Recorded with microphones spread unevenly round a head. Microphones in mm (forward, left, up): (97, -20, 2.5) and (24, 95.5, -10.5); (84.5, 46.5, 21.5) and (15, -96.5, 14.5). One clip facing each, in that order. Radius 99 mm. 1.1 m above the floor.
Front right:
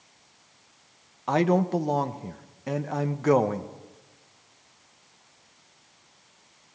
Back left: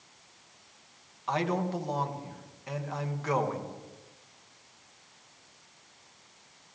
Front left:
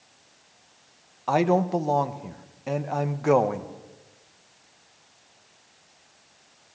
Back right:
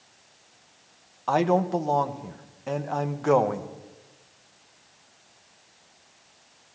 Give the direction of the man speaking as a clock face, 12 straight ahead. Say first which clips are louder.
Front right 7 dB, front left 1 dB; 1 o'clock.